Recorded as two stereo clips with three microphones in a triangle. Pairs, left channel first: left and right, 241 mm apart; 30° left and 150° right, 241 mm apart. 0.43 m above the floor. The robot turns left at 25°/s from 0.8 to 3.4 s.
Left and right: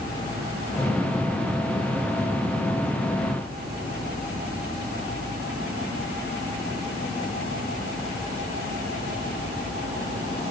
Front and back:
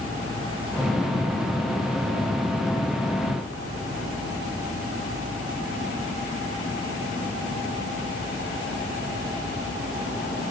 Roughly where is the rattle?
No rattle in this recording.